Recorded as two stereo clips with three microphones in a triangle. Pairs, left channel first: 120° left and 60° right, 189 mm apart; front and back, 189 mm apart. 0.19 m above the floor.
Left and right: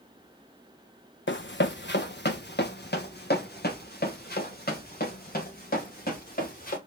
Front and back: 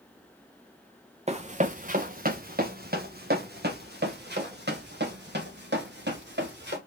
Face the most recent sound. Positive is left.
turn(degrees=160)